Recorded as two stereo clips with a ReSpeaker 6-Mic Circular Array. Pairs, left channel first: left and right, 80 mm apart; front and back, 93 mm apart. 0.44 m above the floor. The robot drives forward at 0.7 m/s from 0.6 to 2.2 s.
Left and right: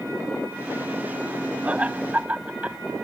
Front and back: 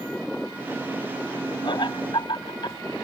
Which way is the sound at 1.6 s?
20° right.